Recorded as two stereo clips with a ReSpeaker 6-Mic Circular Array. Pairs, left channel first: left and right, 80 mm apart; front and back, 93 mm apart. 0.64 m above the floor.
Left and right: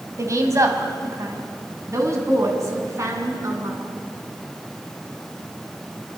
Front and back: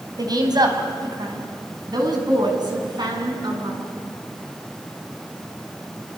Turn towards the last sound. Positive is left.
turn(degrees=-140)